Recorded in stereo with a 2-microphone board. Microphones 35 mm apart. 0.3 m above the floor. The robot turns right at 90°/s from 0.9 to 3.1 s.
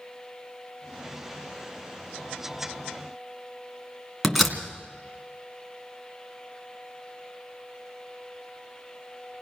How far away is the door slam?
About 2.5 m.